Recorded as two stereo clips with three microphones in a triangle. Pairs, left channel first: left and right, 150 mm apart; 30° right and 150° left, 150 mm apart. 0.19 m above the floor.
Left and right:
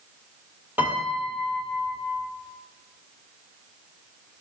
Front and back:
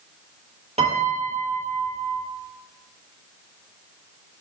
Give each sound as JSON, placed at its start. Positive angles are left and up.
{"t": 0.8, "sound": "a piano", "azimuth_deg": -170, "distance_m": 1.3}